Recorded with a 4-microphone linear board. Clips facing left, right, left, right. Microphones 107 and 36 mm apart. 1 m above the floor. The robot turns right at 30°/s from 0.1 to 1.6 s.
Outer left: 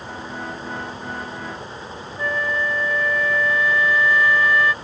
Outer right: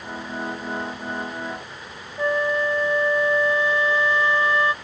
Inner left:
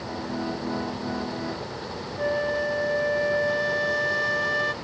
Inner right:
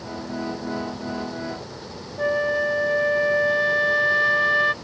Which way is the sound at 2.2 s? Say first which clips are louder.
Outer right 3 dB, inner right 4 dB; 30° right (ahead or behind).